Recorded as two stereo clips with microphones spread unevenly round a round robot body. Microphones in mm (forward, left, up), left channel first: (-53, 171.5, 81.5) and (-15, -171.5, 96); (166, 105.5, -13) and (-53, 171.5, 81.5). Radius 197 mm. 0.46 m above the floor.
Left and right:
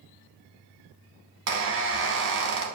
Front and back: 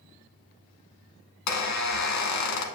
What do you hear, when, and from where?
1.5 s a squeak: 25° right, 0.9 m